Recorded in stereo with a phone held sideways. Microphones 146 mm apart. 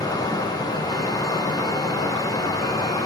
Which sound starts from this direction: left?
Running water, at 0.0 s.